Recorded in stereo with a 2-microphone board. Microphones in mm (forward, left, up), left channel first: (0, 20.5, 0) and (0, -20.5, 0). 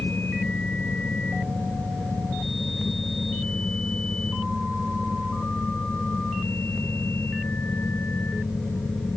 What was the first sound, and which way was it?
Only background noise.